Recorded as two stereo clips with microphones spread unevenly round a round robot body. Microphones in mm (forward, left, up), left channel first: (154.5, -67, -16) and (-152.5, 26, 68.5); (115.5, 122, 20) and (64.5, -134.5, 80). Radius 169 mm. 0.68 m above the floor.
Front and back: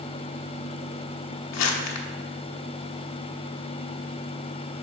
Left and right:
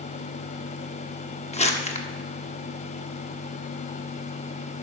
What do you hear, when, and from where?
1.5 s crumpling: 15° left, 1.1 m